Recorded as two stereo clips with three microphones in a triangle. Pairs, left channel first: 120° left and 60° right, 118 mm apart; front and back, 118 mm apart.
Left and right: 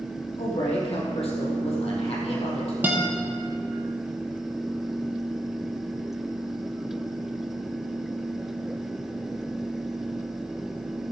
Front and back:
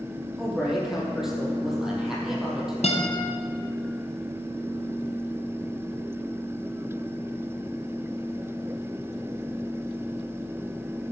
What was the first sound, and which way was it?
A man speaking, 95° left.